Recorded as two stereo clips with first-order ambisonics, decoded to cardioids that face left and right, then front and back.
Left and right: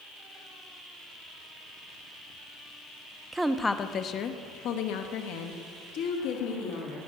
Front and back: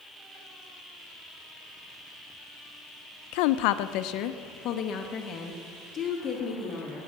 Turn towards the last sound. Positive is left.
turn(degrees=75)